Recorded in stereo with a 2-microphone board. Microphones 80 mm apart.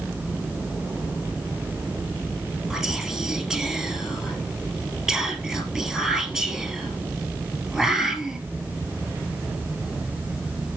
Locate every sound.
2.7 s whispering: 5° right (ahead or behind), 2.5 m